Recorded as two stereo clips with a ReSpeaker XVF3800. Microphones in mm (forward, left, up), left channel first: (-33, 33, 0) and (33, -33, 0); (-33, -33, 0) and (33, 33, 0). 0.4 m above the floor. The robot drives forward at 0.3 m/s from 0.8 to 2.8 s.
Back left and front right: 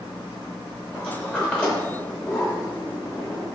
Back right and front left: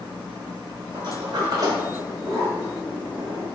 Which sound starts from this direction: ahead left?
A sliding door, at 0.9 s.